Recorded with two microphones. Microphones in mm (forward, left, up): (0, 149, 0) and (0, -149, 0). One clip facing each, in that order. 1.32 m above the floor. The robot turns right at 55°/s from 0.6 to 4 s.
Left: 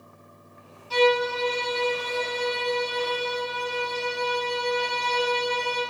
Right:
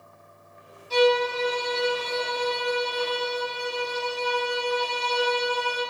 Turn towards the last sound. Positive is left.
turn(degrees=20)